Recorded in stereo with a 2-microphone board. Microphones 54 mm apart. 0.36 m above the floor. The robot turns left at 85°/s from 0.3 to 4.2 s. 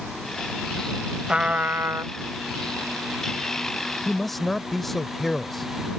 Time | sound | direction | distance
1.3 | a trumpet | 15° right | ?
4.0 | a man speaking | 5° right (ahead or behind) | ?